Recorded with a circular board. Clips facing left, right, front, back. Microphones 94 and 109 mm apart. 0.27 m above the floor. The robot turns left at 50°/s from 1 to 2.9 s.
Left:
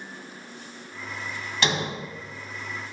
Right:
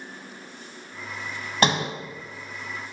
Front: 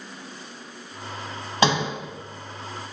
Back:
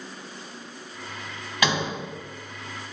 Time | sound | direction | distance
1.6 | a sliding door | 50° right | 1.0 m